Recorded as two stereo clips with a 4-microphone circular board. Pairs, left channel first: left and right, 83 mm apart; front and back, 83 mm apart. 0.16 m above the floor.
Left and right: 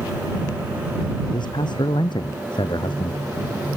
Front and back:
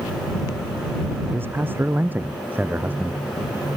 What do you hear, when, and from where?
1.3 s a man speaking: 115° left; by 3.2 s 105° left